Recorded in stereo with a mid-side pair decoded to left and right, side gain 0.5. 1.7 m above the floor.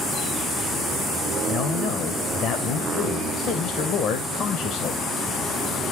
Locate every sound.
1.5 s a man speaking: 65° left, 1.7 m